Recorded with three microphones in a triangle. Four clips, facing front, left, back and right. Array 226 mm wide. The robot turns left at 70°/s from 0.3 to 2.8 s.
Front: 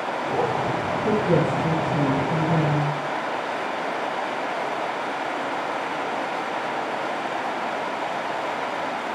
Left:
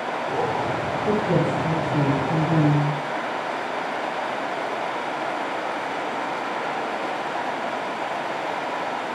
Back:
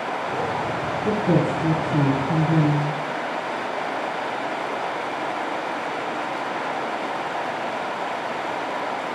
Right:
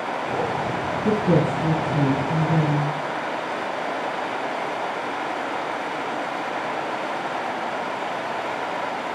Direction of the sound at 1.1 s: 100° right.